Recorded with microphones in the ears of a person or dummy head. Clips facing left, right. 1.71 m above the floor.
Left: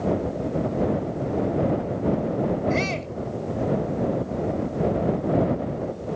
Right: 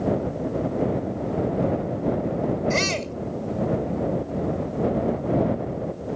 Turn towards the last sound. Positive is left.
turn(degrees=-65)  # may be behind; listen again after turning